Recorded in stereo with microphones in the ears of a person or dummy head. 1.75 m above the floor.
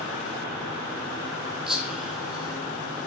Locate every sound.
1.7 s whispering: centre (ahead or behind), 1.2 m